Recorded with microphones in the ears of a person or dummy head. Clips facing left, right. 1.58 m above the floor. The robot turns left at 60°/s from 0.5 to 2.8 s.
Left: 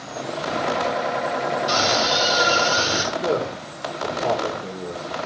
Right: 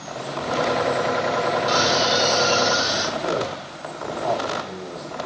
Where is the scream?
155° right, 5.5 m; by 3.0 s 140° left, 5.5 m.